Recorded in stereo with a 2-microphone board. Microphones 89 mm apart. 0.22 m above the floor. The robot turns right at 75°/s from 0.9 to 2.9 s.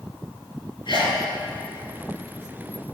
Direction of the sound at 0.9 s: 65° left (ahead or behind).